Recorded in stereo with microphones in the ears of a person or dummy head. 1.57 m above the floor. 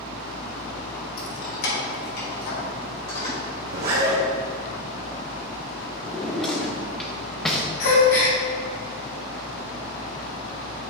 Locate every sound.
1.2 s keys jangling: 65° left (ahead or behind), 1.6 m; by 3.4 s 30° left (ahead or behind), 3 m
3.7 s a zipper: 50° right (ahead or behind), 1.8 m
6.0 s a drawer: 5° left (ahead or behind), 0.7 m
7.8 s a gasp: 45° left (ahead or behind), 1.5 m